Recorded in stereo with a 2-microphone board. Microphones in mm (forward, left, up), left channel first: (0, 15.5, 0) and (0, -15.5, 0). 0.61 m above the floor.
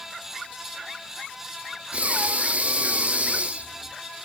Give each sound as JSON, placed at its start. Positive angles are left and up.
{"t": 1.9, "sound": "breathing", "side_deg": -45, "distance_m": 0.5}